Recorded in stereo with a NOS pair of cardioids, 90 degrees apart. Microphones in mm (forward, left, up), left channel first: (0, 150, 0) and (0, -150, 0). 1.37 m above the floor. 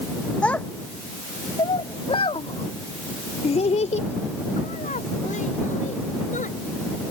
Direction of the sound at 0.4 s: 5° left.